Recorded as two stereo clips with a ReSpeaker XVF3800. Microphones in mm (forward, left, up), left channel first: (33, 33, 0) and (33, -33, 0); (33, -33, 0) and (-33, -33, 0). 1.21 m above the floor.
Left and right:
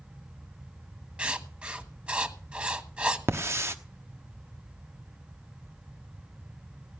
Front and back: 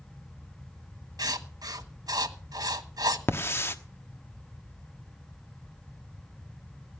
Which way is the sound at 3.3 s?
45° right.